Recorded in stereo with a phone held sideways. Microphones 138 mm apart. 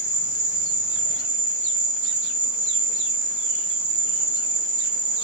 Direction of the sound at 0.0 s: 40° right (ahead or behind).